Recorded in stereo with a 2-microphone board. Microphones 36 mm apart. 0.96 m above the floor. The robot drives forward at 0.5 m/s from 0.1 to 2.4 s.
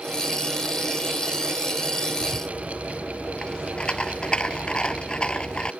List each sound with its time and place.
2.2 s a rattle: 30° left (ahead or behind)